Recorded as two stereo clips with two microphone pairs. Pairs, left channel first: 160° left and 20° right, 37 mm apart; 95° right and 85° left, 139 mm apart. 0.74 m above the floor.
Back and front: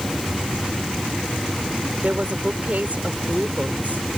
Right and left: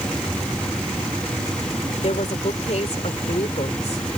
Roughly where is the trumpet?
I don't hear a trumpet.